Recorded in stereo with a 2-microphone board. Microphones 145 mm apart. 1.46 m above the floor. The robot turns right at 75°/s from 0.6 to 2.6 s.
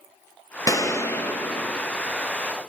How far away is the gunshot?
About 0.7 m.